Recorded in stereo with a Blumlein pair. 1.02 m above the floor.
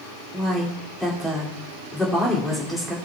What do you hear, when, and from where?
0.3 s a woman speaking: 5° left, 2.5 m